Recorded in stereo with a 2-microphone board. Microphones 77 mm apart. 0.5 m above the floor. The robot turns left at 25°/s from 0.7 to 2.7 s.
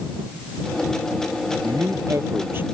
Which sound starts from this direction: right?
A man speaking, at 1.6 s.